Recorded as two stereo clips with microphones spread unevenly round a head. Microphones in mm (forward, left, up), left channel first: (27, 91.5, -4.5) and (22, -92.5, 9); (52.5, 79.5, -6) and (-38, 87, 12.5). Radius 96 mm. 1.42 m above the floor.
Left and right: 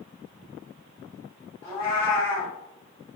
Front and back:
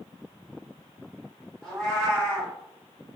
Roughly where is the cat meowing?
Behind left.